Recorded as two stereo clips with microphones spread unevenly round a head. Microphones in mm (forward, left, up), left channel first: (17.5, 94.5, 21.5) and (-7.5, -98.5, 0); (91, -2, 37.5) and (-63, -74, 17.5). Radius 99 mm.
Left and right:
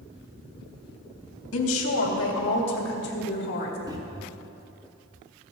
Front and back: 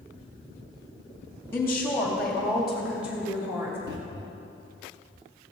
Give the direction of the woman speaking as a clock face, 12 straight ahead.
9 o'clock.